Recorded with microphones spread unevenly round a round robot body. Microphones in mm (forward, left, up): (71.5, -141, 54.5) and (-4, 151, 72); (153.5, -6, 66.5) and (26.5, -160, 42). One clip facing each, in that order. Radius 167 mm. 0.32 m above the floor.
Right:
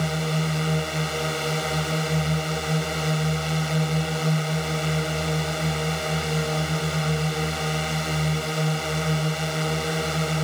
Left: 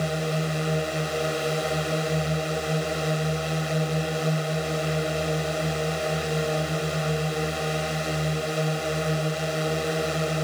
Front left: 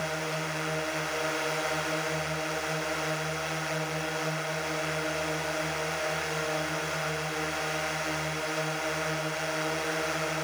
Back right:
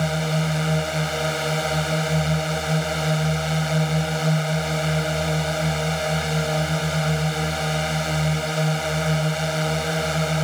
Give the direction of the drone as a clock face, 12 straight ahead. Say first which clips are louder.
Even, back right 9 dB; 5 o'clock.